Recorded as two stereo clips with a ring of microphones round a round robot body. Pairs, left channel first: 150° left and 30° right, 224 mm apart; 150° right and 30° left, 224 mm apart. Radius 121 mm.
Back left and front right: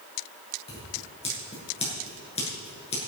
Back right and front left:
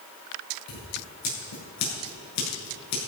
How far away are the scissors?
About 8.5 m.